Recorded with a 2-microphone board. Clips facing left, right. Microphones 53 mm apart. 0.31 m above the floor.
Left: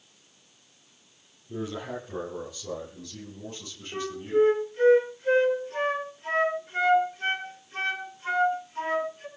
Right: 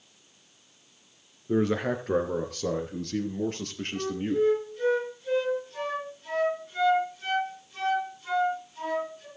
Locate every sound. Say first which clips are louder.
1.5 s a man speaking: right 8 dB; 75° right (ahead or behind), 5 m; by 4.5 s 65° right (ahead or behind), 6 m
3.9 s a flute: left 3 dB; 45° left (ahead or behind), 5 m